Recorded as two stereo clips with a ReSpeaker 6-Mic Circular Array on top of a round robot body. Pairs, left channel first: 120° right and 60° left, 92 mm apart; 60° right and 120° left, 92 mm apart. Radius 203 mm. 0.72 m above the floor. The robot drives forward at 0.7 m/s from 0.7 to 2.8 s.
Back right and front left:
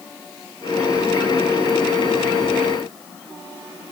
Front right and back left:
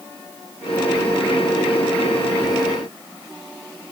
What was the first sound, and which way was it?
Only background noise.